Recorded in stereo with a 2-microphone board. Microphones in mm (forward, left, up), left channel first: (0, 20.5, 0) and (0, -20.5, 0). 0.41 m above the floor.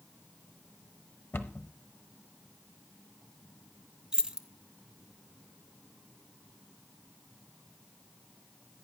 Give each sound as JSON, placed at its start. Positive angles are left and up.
{"t": 1.3, "sound": "a cupboard door", "side_deg": 65, "distance_m": 0.9}
{"t": 4.1, "sound": "keys jangling", "side_deg": -15, "distance_m": 0.6}